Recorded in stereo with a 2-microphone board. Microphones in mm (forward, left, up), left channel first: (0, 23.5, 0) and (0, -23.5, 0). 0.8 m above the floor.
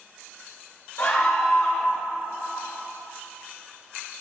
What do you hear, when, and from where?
1.0 s a scream: 55° left (ahead or behind), 3.5 m